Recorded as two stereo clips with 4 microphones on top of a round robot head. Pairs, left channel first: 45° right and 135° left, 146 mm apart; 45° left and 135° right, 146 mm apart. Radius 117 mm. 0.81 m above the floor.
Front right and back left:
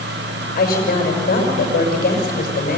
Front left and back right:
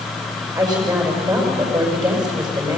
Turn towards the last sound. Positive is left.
turn(degrees=-70)